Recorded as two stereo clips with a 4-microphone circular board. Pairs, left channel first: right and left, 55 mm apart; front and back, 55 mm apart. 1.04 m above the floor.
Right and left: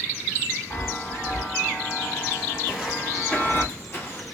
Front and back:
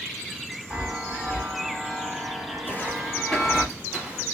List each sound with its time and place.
0.7 s a chime: 110° right, 3 m
2.6 s footsteps: 10° left, 1.2 m; by 4.3 s 125° right, 1.7 m